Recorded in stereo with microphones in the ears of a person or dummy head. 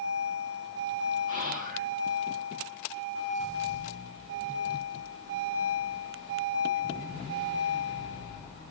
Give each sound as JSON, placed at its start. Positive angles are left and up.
{"t": 1.3, "sound": "whispering", "side_deg": -35, "distance_m": 2.0}